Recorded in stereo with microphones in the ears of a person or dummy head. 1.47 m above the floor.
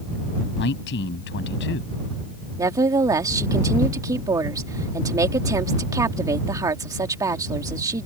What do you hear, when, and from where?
0.6 s a man speaking: 60° left (ahead or behind)
2.6 s a woman speaking: 20° right (ahead or behind)